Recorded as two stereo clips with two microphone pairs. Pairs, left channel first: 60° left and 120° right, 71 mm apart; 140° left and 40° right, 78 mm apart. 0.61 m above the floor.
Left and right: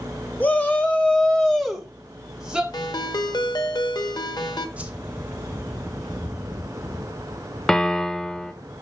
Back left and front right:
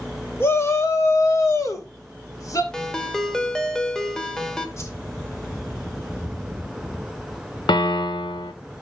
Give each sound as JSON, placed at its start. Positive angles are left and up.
{"t": 0.4, "sound": "a shout", "azimuth_deg": 110, "distance_m": 1.3}
{"t": 2.7, "sound": "a ringtone", "azimuth_deg": 55, "distance_m": 0.9}
{"t": 4.8, "sound": "a whoosh", "azimuth_deg": 175, "distance_m": 1.0}
{"t": 7.7, "sound": "a piano", "azimuth_deg": 145, "distance_m": 0.7}